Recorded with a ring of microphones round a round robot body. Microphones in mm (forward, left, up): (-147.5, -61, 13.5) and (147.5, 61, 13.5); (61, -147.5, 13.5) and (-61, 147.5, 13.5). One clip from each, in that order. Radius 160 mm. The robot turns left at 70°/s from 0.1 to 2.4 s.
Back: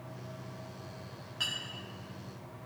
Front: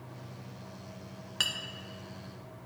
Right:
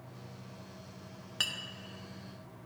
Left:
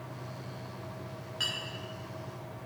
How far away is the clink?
About 0.6 m.